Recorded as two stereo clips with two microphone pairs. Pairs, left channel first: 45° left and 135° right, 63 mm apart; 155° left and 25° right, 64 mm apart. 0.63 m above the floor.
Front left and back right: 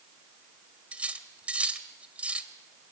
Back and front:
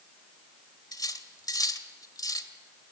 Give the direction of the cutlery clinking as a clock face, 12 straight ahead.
7 o'clock.